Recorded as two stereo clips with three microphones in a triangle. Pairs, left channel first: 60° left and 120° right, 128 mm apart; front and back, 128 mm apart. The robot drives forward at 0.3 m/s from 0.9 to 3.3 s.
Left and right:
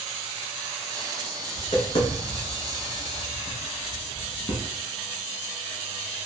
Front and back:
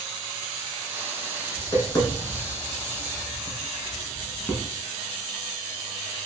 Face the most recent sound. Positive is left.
turn(degrees=75)